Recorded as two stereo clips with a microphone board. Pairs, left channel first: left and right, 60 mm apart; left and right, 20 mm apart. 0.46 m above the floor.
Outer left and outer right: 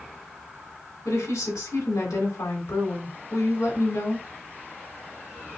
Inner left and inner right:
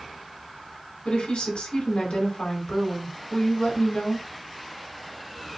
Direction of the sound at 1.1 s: 65° left (ahead or behind).